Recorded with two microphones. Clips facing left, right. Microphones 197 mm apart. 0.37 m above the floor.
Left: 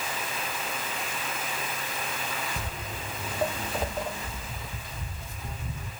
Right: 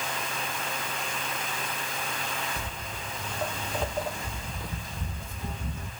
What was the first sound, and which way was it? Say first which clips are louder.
Footsteps: left 1 dB; 45° left (ahead or behind).